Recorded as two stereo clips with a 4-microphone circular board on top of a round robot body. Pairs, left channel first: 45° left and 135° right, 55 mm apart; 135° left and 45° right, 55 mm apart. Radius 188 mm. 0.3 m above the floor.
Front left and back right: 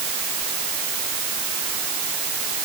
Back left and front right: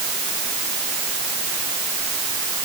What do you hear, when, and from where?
Only background noise.